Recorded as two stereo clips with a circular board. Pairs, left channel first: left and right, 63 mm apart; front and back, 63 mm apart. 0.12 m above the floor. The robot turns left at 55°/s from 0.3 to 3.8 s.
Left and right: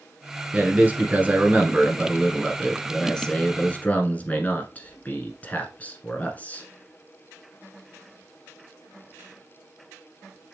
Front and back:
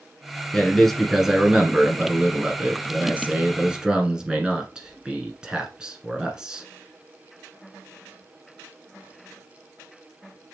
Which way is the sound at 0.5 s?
65° right.